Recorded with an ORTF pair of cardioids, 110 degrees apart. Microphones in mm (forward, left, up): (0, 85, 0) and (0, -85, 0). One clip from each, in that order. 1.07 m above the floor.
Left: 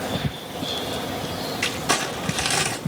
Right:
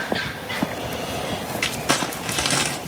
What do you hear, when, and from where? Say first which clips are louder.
1.6 s crumpling: right 1 dB; 35° right, 1.4 m